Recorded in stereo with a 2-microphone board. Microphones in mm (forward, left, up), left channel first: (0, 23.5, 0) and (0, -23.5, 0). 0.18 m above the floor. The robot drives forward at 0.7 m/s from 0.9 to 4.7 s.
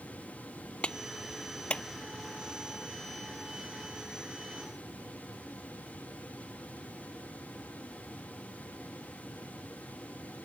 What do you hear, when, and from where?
0.8 s a clap: 25° left (ahead or behind)